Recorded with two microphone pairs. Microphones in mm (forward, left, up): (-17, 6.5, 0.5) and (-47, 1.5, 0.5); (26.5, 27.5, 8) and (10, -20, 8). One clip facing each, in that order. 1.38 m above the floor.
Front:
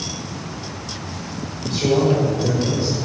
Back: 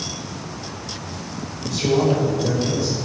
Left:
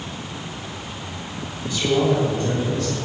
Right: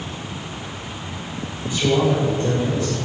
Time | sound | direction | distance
1.6 | a man speaking | 45° right | 6 m